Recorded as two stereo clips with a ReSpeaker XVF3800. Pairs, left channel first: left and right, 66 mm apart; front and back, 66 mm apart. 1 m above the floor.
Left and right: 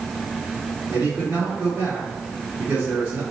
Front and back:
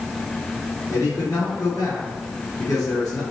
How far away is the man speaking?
About 3 m.